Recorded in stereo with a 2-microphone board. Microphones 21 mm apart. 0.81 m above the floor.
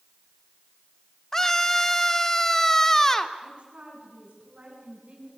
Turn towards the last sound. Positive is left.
turn(degrees=-60)  # may be behind; listen again after turning